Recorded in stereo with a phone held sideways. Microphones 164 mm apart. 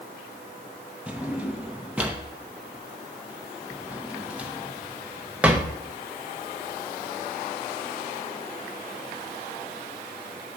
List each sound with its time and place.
1.1 s a drawer: 10° right (ahead or behind), 0.7 m